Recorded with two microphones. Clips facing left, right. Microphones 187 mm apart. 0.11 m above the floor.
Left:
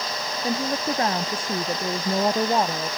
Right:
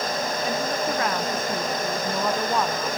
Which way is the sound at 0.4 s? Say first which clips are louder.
Left 3 dB; 30° left (ahead or behind).